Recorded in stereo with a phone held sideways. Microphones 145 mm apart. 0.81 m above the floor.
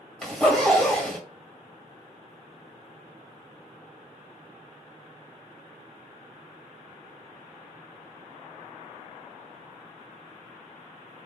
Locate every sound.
0.2 s a zipper: centre (ahead or behind), 2 m